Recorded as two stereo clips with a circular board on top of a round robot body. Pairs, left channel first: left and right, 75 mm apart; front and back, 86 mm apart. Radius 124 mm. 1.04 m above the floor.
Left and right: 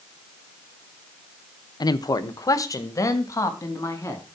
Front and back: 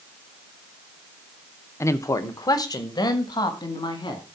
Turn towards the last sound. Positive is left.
turn(degrees=35)